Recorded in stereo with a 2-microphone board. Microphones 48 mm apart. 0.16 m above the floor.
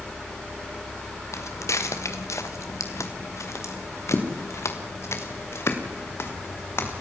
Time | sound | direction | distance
1.3 | footsteps | 80° left | 3 m